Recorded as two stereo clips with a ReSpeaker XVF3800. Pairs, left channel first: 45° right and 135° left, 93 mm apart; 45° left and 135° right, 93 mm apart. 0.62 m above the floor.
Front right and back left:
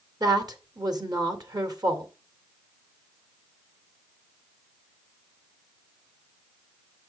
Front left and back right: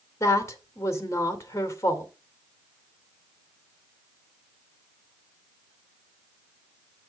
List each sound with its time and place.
0.2 s a woman speaking: 100° left, 2 m